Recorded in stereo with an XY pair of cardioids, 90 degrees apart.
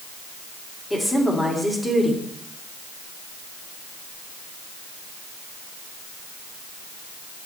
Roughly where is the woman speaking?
Ahead.